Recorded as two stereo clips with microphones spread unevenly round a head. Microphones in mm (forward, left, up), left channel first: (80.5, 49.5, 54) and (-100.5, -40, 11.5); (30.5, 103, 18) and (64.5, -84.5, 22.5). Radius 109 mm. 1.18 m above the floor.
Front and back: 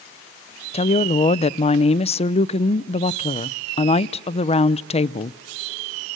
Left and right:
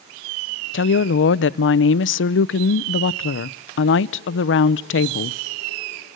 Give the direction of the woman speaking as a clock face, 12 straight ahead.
9 o'clock.